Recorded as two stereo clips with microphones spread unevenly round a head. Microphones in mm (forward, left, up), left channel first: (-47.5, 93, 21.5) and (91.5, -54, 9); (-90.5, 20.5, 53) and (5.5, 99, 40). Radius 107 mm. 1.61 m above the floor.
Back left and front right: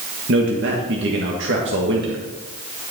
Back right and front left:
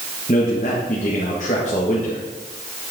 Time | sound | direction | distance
0.3 | a man speaking | 85° right | 1.6 m